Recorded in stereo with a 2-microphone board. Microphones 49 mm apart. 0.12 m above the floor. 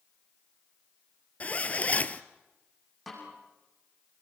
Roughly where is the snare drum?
Centre.